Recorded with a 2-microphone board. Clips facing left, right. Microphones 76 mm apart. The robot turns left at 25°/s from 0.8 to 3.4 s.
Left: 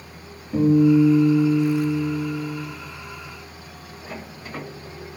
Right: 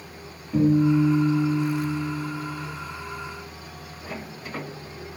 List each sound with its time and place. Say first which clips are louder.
0.5 s a guitar: left 4 dB; 30° left, 1.5 m; by 2.6 s 15° right, 1.5 m